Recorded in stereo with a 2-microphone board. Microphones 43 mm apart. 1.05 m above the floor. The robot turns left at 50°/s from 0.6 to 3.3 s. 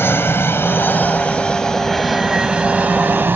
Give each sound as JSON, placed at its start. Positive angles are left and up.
{"t": 0.0, "sound": "an aircraft", "side_deg": 65}